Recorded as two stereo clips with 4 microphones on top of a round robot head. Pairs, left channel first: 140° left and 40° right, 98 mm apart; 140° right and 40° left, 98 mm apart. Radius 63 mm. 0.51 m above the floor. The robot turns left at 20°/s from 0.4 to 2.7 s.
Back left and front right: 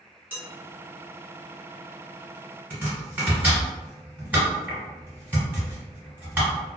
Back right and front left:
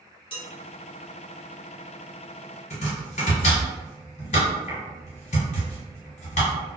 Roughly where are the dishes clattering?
Right.